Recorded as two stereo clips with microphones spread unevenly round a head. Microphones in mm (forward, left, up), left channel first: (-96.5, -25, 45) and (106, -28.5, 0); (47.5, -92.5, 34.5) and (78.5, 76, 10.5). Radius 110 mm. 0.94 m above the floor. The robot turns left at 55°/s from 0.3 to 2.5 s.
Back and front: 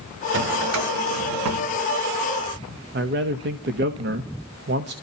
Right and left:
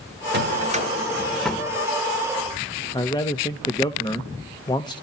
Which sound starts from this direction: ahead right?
A man speaking, at 2.9 s.